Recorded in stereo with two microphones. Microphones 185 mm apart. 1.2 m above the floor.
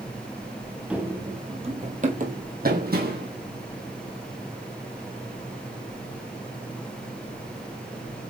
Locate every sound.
0.9 s running footsteps: 5° right (ahead or behind), 1.4 m; by 3.3 s 60° right (ahead or behind), 3 m